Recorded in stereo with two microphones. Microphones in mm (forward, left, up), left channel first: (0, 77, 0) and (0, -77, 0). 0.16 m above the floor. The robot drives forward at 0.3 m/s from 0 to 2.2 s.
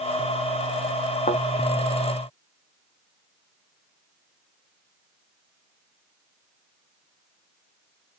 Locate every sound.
1.3 s a thud: 50° left (ahead or behind), 0.8 m